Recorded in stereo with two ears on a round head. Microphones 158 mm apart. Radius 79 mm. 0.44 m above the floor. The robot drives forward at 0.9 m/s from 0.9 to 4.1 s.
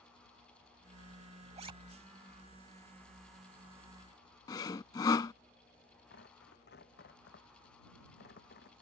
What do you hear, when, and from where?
1.6 s a zipper: 35° right (ahead or behind); by 1.7 s 30° right (ahead or behind)
4.5 s sawing: 20° left (ahead or behind)
6.1 s tearing paper: 60° left (ahead or behind)